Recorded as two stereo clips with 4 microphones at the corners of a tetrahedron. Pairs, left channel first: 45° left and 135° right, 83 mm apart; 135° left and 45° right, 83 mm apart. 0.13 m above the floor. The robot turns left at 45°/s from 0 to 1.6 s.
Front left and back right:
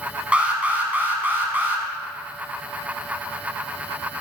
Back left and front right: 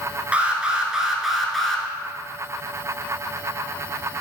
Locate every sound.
0.3 s an alarm: 85° right, 0.9 m; by 1.8 s 145° right, 0.9 m